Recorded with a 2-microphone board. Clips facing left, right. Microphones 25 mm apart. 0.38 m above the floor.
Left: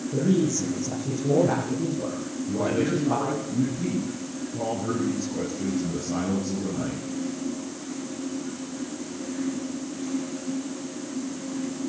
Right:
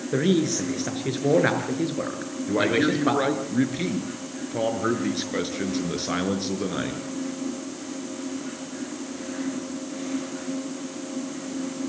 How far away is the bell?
I don't hear a bell.